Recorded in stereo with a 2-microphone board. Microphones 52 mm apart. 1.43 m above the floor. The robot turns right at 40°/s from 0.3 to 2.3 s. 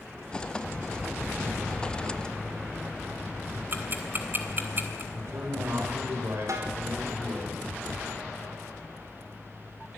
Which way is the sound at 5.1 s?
55° right (ahead or behind).